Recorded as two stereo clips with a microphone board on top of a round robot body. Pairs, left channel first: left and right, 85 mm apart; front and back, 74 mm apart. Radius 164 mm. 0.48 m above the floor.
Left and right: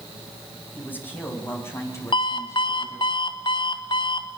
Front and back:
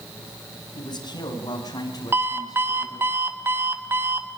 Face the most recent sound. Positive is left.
turn(degrees=115)